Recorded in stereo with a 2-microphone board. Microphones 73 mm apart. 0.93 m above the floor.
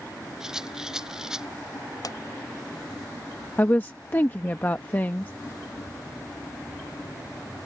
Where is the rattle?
10° right (ahead or behind).